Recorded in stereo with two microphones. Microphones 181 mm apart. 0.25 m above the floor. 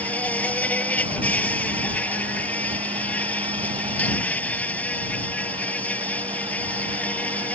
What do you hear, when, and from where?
0.0 s an insect: 10° left (ahead or behind)